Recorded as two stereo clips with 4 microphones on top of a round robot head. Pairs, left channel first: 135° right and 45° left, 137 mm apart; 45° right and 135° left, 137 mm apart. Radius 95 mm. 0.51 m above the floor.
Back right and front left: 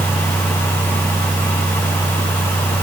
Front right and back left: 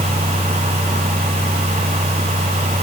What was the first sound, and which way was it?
Only background noise.